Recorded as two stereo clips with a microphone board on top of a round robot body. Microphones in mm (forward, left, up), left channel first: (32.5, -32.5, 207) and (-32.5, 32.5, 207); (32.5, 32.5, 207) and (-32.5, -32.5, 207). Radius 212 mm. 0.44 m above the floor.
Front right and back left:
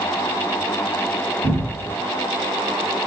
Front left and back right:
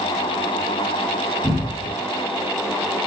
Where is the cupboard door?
125° left, 1.5 m.